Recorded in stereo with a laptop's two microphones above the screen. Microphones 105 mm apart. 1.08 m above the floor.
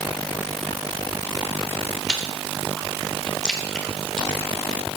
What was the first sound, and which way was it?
Chewing, 5° left (ahead or behind).